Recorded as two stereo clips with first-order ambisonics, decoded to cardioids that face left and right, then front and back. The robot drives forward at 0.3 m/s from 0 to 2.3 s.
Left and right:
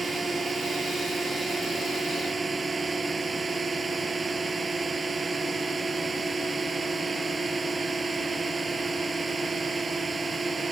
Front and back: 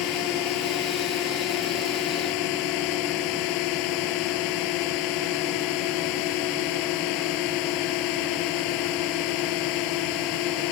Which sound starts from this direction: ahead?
A drone, at 0.0 s.